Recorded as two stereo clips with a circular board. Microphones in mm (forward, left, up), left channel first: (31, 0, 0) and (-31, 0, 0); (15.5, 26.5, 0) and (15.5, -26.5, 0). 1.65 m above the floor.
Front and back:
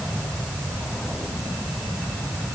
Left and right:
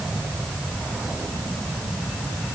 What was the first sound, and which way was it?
Only background noise.